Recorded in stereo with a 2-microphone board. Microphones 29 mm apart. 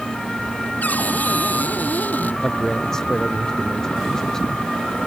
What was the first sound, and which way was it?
A cupboard door, 75° left (ahead or behind).